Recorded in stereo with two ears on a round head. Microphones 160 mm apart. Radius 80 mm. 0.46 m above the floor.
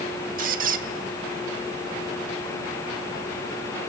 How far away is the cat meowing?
No cat meowing in this recording.